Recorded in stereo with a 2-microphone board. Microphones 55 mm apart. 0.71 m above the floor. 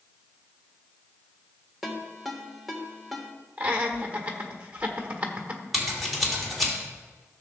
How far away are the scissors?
About 2.5 m.